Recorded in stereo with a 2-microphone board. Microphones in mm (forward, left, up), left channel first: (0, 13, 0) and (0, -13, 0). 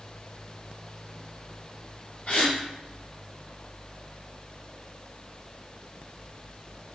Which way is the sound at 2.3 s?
50° left (ahead or behind).